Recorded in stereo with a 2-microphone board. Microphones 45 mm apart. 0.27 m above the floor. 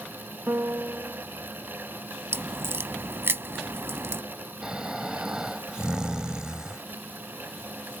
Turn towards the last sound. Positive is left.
turn(degrees=-20)  # may be behind; listen again after turning